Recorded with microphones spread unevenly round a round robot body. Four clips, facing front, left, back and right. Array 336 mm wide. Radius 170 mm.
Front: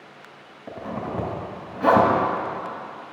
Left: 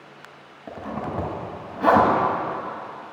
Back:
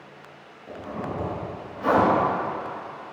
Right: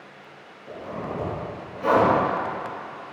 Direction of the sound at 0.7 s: 45° left.